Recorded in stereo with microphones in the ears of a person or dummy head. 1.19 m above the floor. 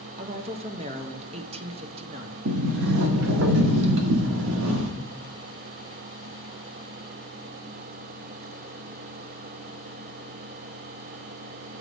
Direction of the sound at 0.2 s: 25° right (ahead or behind).